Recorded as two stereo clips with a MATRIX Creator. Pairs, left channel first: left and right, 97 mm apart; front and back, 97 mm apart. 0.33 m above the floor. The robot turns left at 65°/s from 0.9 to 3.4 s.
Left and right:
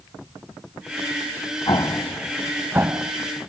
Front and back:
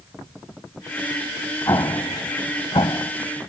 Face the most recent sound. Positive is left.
turn(degrees=-60)